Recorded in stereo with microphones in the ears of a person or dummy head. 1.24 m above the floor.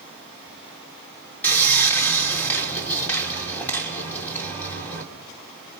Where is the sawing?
10° left (ahead or behind), 3 m.